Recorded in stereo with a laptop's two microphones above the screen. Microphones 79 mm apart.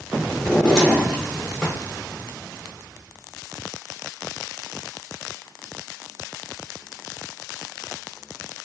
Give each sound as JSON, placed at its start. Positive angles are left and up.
{"t": 0.4, "sound": "a drawer", "side_deg": 10, "distance_m": 0.7}